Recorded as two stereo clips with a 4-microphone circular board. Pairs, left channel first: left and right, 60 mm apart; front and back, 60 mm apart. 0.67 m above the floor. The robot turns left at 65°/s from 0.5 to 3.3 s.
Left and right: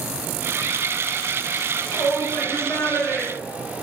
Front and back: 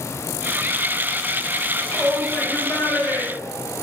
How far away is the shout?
About 3.5 m.